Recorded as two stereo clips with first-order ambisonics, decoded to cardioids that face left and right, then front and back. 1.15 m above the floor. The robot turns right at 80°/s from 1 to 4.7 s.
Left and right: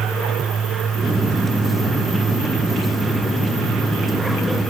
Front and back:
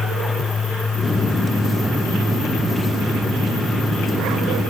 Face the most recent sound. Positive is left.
No sound to turn to.